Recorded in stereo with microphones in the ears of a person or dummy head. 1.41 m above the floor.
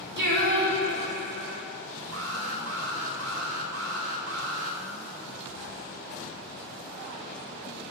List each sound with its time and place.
0.2 s singing: 65° right (ahead or behind), 2 m
2.1 s an alarm: 85° right, 3 m